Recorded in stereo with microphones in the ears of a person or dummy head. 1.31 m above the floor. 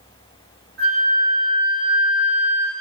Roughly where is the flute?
Centre.